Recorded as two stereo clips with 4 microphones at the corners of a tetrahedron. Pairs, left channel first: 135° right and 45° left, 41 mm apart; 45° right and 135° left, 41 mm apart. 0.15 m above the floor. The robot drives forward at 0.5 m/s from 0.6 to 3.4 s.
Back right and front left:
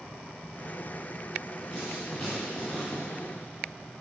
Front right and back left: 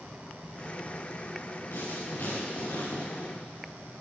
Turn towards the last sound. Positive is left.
turn(degrees=-60)